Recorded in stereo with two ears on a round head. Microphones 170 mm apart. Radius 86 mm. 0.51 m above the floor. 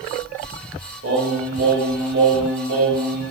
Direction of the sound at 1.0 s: 60° right (ahead or behind).